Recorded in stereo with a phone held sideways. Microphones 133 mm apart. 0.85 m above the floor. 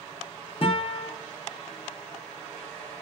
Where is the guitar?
45° left (ahead or behind), 0.8 m.